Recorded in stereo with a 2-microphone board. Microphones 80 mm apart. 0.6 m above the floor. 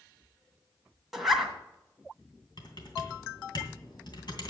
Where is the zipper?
Centre (ahead or behind), 1.8 m.